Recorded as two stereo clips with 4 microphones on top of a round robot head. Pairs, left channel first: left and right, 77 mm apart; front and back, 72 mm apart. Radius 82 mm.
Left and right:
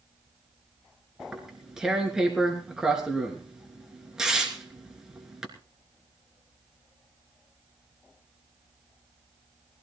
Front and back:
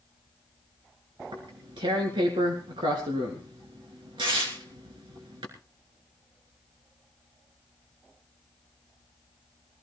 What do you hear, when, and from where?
1.2 s tearing paper: 170° right, 3 m